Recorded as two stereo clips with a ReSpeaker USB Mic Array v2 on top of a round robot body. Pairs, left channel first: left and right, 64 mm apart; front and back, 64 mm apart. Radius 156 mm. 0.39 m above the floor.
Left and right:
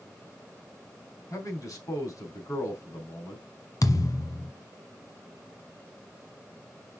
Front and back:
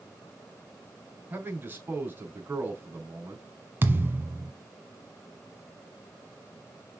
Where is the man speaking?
120° left, 4.5 m.